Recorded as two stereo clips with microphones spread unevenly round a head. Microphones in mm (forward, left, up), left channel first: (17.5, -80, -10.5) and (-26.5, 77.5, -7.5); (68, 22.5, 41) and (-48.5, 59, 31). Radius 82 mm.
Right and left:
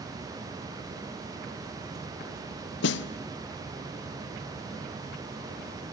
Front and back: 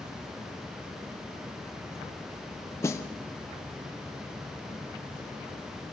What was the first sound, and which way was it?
A snare drum, 90° right.